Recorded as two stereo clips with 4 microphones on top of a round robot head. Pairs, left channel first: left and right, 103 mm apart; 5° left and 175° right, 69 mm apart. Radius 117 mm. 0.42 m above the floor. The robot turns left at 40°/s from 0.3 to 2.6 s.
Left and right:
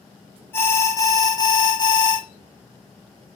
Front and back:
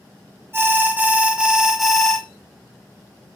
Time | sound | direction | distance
0.5 | an alarm | 145° left | 0.8 m